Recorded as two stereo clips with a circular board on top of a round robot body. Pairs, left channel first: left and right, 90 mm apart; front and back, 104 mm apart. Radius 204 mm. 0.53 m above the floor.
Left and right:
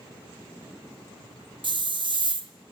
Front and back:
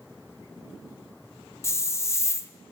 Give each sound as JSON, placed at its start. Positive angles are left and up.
{"t": 1.6, "sound": "a hiss", "azimuth_deg": -65, "distance_m": 0.6}